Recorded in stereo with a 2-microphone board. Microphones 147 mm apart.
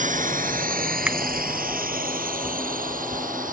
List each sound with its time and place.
0.0 s a drone: 60° right (ahead or behind); by 3.5 s 65° right (ahead or behind)
1.1 s a finger snap: 10° right (ahead or behind)